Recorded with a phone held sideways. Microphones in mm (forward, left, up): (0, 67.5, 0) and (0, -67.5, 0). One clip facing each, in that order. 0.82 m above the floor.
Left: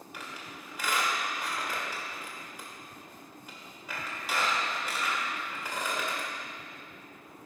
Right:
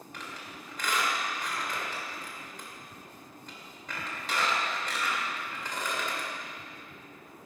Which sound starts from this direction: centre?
A squeak, at 0.1 s.